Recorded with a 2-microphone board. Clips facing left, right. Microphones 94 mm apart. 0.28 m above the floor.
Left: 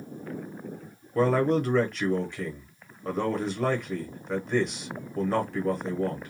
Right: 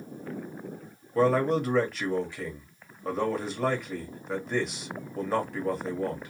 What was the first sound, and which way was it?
A man speaking, centre (ahead or behind).